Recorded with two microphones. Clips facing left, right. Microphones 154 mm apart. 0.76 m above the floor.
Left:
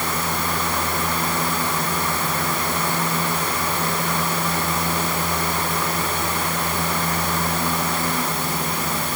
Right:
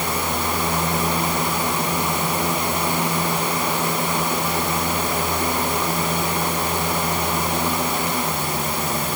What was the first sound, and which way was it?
Only background noise.